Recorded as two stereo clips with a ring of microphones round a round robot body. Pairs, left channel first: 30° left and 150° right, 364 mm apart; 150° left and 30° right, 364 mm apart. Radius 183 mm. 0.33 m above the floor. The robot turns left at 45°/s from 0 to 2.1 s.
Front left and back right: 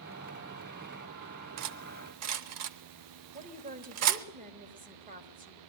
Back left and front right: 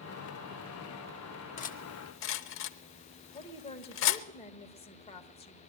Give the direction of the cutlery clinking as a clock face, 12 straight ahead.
5 o'clock.